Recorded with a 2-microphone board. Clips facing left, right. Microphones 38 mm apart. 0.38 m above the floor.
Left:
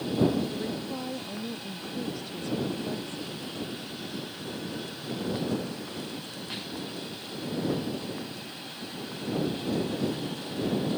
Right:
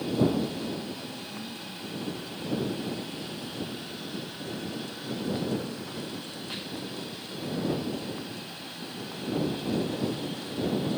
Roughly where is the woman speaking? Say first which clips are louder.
Left 1 dB; left.